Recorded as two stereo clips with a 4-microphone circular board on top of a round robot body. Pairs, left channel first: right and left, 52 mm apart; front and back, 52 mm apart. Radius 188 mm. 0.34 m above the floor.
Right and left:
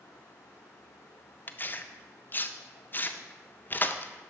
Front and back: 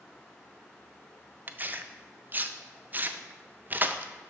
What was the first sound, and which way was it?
Tearing paper, 130° right.